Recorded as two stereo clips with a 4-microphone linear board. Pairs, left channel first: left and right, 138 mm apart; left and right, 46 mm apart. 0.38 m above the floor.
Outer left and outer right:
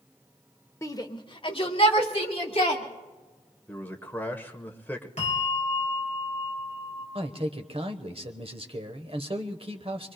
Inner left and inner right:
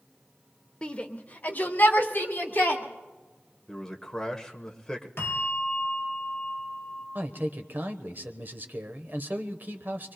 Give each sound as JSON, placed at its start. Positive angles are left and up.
{"t": 0.8, "sound": "a shout", "side_deg": 20, "distance_m": 0.9}
{"t": 3.7, "sound": "a man speaking", "side_deg": 15, "distance_m": 1.1}
{"t": 5.2, "sound": "a bell", "side_deg": 50, "distance_m": 3.5}
{"t": 7.2, "sound": "a man speaking", "side_deg": -45, "distance_m": 1.1}